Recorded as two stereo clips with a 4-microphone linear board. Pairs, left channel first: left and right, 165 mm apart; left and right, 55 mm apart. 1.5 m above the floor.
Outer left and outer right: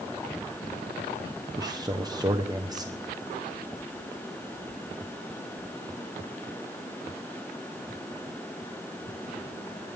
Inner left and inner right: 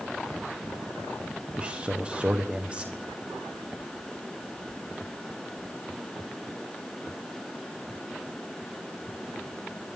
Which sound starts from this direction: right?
A man speaking, at 1.6 s.